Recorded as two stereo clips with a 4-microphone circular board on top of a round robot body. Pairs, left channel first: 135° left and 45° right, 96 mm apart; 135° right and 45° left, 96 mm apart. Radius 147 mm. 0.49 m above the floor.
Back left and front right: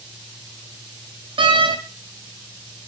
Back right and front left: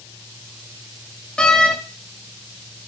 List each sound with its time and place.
1.4 s a door slam: 55° right, 0.6 m